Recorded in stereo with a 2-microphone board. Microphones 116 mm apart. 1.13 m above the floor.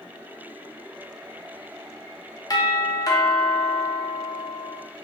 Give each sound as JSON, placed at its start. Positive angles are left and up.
{"t": 2.5, "sound": "a doorbell", "side_deg": 35, "distance_m": 0.7}